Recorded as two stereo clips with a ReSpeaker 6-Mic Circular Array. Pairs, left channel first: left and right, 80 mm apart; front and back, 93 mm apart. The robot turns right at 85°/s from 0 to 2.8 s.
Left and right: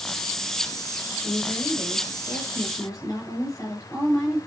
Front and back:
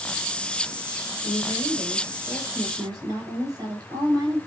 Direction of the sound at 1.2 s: 5° left.